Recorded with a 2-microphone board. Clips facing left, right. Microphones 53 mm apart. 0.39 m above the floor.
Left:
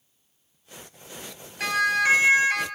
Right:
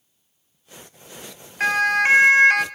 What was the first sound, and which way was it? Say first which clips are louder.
A siren: right 4 dB; 40° right (ahead or behind).